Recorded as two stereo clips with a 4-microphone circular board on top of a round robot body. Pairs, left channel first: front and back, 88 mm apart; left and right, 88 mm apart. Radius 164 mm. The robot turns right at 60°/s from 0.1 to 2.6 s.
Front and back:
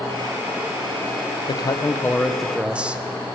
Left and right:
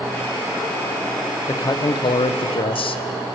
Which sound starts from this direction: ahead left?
A man speaking, at 1.5 s.